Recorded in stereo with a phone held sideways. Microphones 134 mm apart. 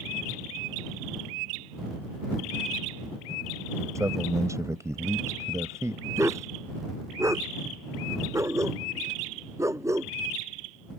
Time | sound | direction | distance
4.0 | a man speaking | 20° right (ahead or behind) | ?
6.2 | a dog barking | 20° right (ahead or behind) | ?